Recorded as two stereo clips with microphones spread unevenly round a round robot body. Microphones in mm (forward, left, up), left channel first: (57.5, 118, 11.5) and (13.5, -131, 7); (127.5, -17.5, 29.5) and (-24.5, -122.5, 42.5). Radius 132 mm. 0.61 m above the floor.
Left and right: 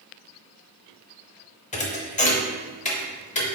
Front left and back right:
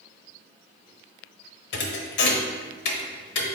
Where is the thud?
15° left, 0.8 m.